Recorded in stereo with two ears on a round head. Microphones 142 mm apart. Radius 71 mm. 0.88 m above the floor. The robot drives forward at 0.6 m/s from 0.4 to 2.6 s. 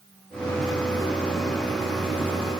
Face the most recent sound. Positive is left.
No sound to turn to.